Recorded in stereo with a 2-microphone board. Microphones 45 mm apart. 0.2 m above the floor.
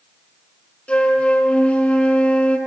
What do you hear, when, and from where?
0.9 s a flute: 35° left (ahead or behind), 2.5 m